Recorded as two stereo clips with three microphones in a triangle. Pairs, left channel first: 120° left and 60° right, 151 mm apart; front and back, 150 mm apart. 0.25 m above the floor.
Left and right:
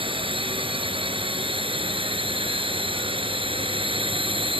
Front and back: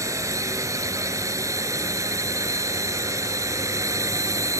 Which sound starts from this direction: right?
A drone, at 0.0 s.